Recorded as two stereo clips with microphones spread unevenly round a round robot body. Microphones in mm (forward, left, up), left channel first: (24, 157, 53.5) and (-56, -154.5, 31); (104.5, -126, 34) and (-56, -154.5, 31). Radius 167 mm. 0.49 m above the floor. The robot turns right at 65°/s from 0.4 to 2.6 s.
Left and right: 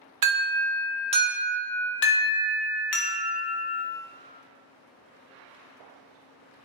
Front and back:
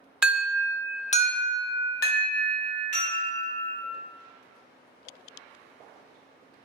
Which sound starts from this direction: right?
An alarm, at 0.2 s.